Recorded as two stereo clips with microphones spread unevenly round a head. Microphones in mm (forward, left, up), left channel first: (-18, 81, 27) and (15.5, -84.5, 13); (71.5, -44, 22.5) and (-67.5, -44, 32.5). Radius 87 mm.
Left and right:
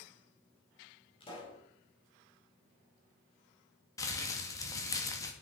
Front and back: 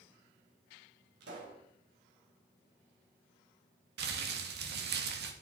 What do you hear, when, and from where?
1.2 s a pop: 165° left, 4.5 m
4.0 s crumpling: 175° left, 2 m